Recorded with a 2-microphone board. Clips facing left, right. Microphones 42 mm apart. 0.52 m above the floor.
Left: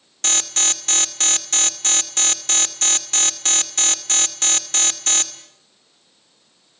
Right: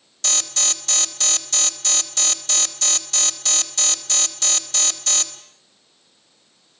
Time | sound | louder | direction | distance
0.2 | an alarm | left 2 dB | 45° left (ahead or behind) | 2.5 m